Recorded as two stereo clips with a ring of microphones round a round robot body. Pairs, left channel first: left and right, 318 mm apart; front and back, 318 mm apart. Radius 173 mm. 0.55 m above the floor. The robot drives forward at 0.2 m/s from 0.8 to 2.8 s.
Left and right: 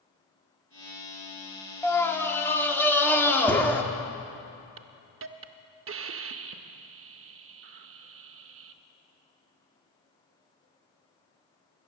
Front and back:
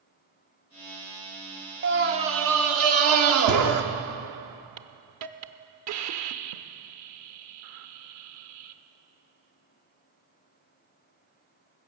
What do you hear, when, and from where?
1.8 s a scream: 170° left, 0.9 m
4.8 s a hiss: 140° right, 0.7 m